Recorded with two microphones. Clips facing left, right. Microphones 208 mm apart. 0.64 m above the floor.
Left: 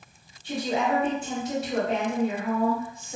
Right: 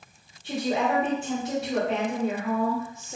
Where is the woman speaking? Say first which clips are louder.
Right 1 dB; 35° right (ahead or behind), 1.7 m.